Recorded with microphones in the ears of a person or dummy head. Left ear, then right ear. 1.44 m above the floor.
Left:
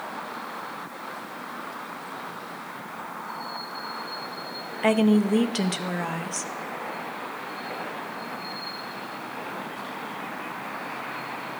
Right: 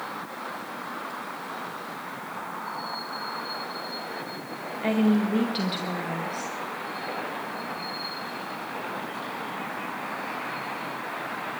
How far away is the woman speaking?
About 0.6 m.